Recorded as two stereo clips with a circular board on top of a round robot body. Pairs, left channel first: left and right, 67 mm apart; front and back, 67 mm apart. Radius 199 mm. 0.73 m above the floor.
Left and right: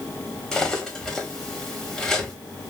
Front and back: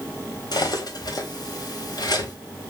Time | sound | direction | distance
0.5 | cutlery clinking | 5° left | 1.3 m